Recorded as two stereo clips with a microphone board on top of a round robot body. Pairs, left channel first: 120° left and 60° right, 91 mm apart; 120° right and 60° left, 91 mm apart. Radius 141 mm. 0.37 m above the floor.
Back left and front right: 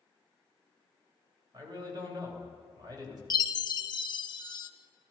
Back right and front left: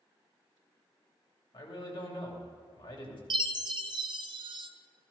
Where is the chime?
85° left, 0.7 m.